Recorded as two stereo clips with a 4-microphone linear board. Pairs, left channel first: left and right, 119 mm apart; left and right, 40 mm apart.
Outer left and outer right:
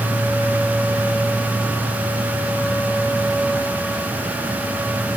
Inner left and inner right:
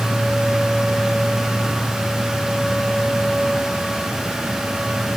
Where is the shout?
No shout in this recording.